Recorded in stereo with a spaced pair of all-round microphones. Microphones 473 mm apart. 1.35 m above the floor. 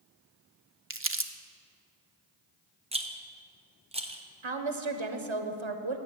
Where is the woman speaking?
75° right (ahead or behind), 0.9 m.